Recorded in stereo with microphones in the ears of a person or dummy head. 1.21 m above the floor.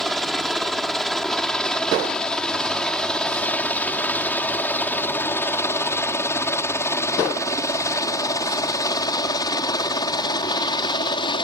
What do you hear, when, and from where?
0.0 s a helicopter: centre (ahead or behind); by 11.4 s 25° left (ahead or behind)